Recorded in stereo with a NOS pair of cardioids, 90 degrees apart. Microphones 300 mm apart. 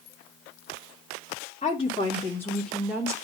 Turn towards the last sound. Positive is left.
turn(degrees=-10)